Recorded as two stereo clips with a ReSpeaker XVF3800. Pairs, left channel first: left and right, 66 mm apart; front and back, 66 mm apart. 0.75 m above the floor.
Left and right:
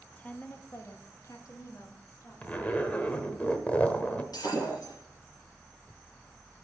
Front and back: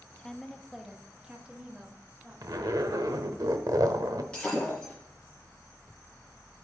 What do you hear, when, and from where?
0.2 s a woman speaking: 55° left, 0.8 m; by 3.0 s 120° left, 2.5 m
2.4 s a zipper: 160° left, 1.0 m
4.3 s breaking glass: 75° left, 5 m